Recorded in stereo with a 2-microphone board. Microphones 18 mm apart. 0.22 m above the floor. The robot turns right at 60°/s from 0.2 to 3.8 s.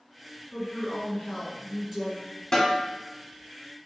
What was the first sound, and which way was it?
A woman speaking, 115° left.